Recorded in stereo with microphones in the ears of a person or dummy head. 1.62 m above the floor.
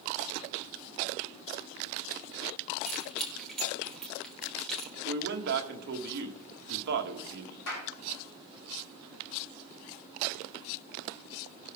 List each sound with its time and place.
2.8 s keys jangling: 5° left (ahead or behind), 1.5 m
5.0 s a man speaking: 55° right (ahead or behind), 1.4 m
7.7 s a clap: 80° left, 5.5 m